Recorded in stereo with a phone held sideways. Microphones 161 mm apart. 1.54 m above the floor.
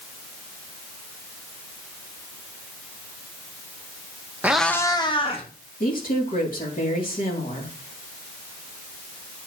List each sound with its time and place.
4.4 s a cat meowing: 10° right (ahead or behind), 0.7 m; by 5.5 s 35° left (ahead or behind), 1.6 m
5.8 s a woman speaking: 60° left (ahead or behind), 2.5 m